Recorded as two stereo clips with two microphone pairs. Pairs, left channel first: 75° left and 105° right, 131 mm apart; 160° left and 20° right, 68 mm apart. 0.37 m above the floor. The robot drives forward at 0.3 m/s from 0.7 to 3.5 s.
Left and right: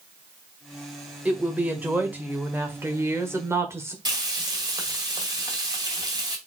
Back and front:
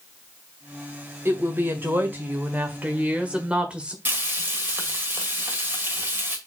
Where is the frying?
65° right, 1.9 m.